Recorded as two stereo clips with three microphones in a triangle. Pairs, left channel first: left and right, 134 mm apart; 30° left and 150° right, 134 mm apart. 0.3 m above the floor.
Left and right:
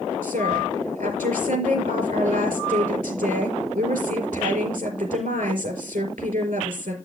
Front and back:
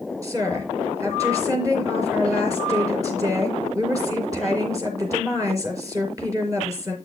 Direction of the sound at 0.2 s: 85° right.